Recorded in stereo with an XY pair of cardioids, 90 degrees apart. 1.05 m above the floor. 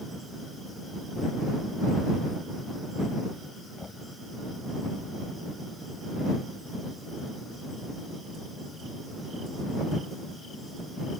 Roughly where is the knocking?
Ahead left.